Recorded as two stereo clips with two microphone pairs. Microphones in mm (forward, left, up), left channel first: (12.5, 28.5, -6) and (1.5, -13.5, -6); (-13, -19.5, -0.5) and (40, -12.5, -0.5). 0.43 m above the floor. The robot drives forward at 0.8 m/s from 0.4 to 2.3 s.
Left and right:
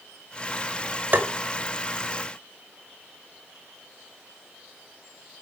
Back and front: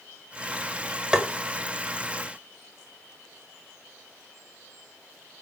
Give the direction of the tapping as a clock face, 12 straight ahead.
2 o'clock.